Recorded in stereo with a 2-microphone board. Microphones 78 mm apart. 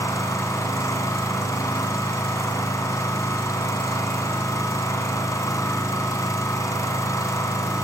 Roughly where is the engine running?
Left.